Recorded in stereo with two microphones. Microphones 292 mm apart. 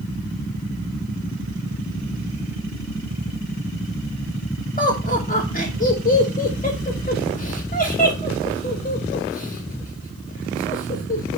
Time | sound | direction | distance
4.8 | laughter | 30° left (ahead or behind) | 1.2 m